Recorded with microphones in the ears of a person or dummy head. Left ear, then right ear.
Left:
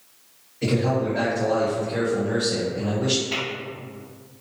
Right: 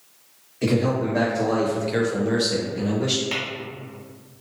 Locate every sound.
0.6 s a man speaking: 40° right (ahead or behind), 1.0 m; by 3.2 s 5° right (ahead or behind), 1.4 m
3.3 s tapping: 70° right (ahead or behind), 1.4 m